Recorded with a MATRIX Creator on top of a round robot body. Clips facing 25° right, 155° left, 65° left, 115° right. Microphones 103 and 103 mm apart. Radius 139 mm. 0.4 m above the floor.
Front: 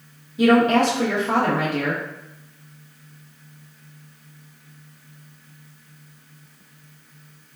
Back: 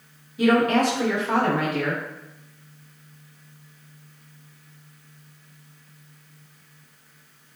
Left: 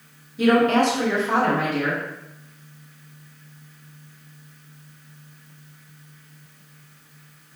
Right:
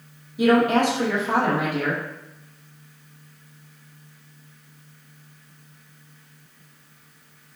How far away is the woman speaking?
About 0.8 m.